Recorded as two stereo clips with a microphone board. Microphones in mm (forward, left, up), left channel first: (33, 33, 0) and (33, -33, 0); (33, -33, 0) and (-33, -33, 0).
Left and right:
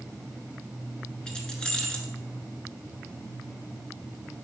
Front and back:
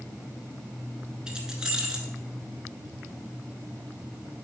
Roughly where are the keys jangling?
Behind left.